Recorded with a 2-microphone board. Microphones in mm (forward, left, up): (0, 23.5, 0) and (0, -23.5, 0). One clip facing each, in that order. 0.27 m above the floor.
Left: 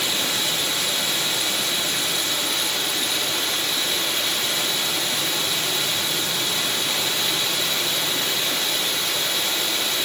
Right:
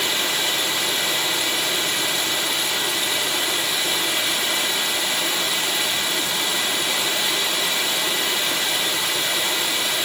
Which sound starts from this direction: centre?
Running water, at 0.0 s.